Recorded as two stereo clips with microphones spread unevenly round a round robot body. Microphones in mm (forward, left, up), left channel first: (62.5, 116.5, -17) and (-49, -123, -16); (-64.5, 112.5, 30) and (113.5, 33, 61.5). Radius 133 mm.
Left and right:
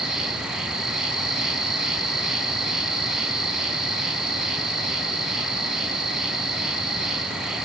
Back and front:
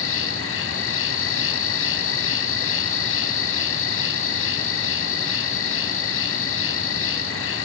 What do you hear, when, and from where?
0.0 s an insect: 155° left, 1.4 m